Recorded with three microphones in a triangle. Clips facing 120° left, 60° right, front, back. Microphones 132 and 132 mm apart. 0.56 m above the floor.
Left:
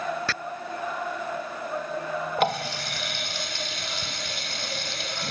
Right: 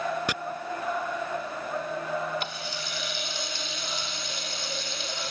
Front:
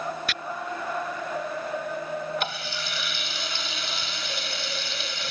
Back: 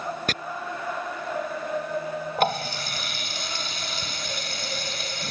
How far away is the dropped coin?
I don't hear a dropped coin.